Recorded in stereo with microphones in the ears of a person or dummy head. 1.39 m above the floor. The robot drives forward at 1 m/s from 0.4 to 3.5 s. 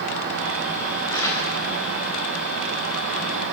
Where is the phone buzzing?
No phone buzzing in this recording.